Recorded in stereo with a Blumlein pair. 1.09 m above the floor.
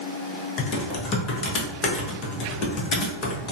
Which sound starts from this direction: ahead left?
Typing on a keyboard, at 0.6 s.